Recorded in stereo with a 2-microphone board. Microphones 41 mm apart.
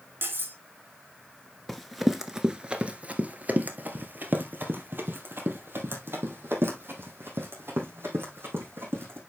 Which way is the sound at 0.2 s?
60° right (ahead or behind).